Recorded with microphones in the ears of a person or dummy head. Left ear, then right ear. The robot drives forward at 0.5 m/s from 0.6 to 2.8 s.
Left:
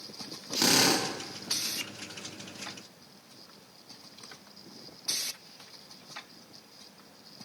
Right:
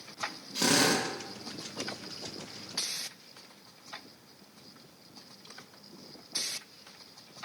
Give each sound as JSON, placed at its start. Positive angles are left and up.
{"t": 0.6, "sound": "a drill", "side_deg": 15, "distance_m": 1.7}